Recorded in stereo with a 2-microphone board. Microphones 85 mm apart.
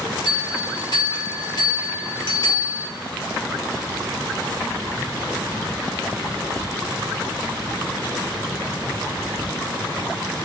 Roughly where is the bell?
Left.